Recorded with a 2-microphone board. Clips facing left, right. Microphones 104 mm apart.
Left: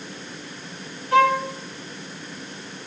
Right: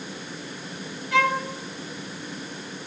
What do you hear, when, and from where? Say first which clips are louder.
1.1 s a violin: left 5 dB; 45° left (ahead or behind), 1.0 m